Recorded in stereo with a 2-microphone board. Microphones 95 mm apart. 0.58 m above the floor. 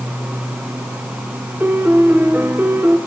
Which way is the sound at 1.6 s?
20° right (ahead or behind).